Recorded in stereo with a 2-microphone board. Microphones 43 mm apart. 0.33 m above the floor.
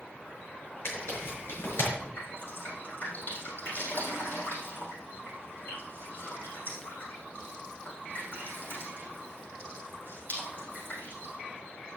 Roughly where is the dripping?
Left.